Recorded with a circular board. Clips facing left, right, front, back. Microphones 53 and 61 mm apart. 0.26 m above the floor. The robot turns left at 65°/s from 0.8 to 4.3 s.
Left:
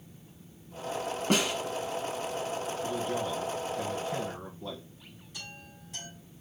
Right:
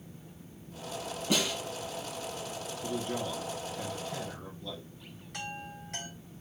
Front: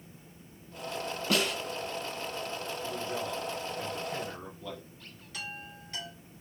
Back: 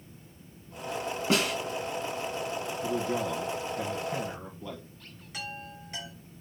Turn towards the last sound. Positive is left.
turn(degrees=-110)